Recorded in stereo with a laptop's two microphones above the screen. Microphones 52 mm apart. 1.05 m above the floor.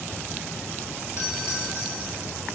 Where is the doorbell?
60° left (ahead or behind), 8 m.